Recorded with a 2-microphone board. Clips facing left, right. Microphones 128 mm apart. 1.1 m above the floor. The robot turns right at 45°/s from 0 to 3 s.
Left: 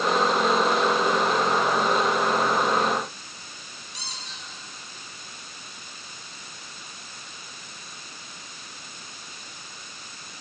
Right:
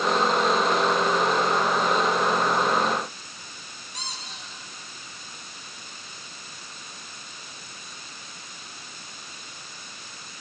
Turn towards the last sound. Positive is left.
turn(degrees=-50)  # may be behind; listen again after turning